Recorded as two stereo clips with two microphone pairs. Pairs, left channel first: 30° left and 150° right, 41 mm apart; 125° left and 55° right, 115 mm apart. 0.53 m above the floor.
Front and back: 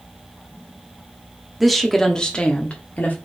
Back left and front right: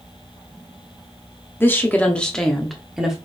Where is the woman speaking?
130° left, 0.8 m; by 3.2 s 30° left, 1.0 m.